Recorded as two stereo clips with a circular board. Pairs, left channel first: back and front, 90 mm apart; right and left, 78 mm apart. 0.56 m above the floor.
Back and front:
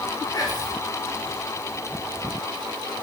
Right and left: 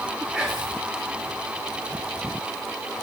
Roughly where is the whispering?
Behind.